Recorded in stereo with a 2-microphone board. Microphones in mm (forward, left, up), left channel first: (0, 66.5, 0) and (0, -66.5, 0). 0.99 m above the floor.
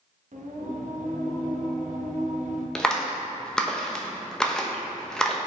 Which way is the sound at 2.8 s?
5° left (ahead or behind).